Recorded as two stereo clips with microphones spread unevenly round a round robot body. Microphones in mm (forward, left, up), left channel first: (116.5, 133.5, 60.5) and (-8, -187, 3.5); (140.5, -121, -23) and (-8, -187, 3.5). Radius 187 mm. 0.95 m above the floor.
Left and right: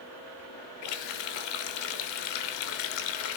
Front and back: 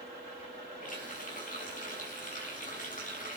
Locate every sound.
0.8 s a running tap: 95° left, 2.5 m